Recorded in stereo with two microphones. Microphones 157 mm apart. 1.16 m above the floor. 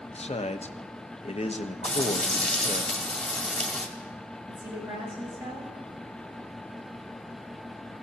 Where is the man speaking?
40° left (ahead or behind), 0.8 m.